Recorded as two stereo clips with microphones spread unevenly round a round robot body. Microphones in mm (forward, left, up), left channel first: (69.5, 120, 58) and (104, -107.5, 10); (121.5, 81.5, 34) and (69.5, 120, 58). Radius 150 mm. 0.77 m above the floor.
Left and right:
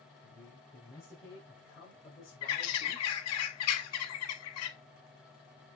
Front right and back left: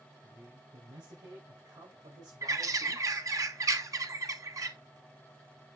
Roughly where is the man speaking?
Behind.